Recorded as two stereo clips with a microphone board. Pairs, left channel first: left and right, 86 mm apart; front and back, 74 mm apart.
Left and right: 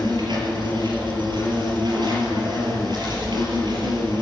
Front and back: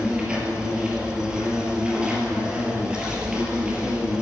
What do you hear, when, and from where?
0.0 s an insect: 105° right, 3.5 m